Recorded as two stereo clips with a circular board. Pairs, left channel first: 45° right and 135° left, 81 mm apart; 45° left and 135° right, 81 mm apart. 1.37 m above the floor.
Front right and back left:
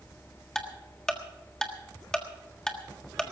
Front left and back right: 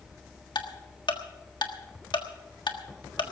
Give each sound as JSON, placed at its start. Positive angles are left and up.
{"t": 0.6, "sound": "ticking", "azimuth_deg": 35, "distance_m": 1.4}